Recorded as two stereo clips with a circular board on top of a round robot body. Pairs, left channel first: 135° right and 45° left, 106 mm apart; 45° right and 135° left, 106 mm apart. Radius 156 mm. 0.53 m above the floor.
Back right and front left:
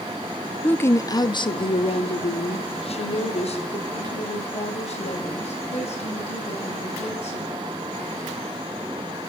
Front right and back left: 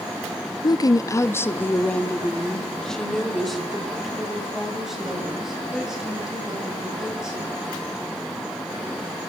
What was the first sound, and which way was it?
A woman speaking, 65° right.